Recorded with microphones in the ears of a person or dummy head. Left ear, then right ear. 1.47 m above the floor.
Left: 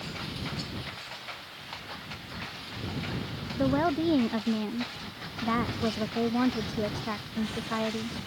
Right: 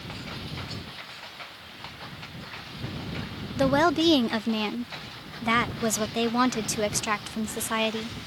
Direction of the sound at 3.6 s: 75° right (ahead or behind).